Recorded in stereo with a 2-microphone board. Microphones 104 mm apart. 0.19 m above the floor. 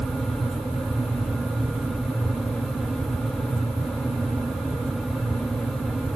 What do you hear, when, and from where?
Only background noise.